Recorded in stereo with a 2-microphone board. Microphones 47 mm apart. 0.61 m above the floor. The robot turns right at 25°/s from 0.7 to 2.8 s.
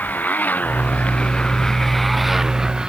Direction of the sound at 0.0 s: 140° left.